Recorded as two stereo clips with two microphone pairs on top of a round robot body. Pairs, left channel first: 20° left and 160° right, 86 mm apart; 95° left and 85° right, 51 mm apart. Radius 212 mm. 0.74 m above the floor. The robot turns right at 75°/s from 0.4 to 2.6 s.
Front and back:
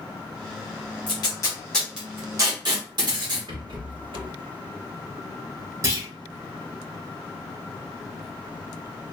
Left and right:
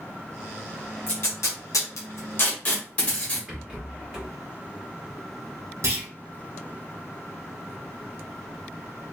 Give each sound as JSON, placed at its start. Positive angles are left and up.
{"t": 1.1, "sound": "tape being pulled", "azimuth_deg": 50, "distance_m": 1.0}
{"t": 3.5, "sound": "a rattle", "azimuth_deg": -160, "distance_m": 1.5}
{"t": 5.8, "sound": "a clunk", "azimuth_deg": -105, "distance_m": 0.9}